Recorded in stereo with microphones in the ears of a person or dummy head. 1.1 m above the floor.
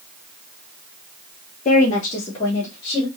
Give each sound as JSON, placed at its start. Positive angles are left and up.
{"t": 1.6, "sound": "a woman speaking", "side_deg": 30, "distance_m": 0.7}